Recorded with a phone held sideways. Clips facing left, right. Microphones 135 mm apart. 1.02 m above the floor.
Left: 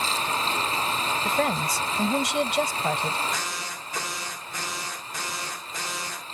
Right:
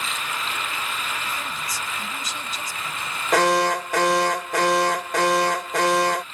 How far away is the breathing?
No breathing in this recording.